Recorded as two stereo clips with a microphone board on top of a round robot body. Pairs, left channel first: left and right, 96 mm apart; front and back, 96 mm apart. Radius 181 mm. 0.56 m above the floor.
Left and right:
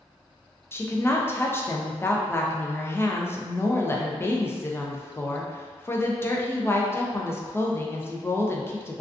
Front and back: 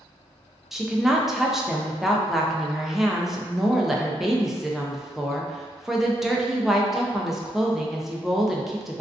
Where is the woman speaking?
95° left, 0.6 m.